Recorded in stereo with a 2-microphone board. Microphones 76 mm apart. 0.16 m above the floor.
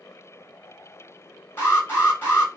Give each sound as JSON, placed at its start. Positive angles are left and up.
{"t": 1.6, "sound": "an alarm", "side_deg": 30, "distance_m": 2.5}